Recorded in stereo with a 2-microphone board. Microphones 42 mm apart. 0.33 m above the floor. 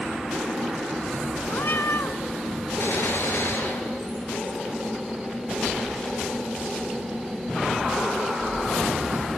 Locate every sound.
1.5 s a cat meowing: 60° left (ahead or behind), 1.4 m
2.8 s a gunshot: 75° left (ahead or behind), 6.5 m